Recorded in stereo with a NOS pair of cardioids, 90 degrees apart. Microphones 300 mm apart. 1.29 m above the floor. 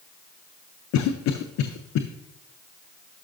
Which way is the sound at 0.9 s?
70° left.